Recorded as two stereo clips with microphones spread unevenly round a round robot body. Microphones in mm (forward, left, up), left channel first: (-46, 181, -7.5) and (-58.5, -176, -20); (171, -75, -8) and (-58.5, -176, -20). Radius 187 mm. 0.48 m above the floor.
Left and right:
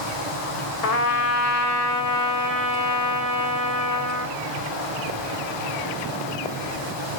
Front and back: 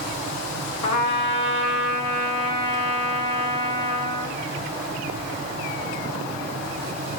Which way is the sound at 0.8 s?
50° left.